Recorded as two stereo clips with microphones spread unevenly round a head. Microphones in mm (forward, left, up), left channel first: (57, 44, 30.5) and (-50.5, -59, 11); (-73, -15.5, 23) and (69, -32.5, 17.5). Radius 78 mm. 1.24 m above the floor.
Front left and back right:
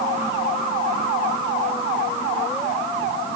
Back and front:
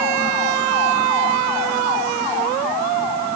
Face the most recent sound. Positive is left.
No sound to turn to.